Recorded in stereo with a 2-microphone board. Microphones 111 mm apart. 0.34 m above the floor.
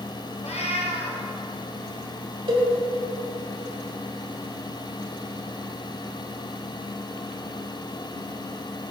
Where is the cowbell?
50° right (ahead or behind), 2 m.